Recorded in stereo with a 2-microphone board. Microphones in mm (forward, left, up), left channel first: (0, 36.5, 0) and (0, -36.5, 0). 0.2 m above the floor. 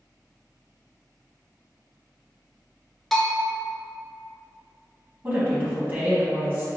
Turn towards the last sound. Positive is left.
turn(degrees=-30)  # may be behind; listen again after turning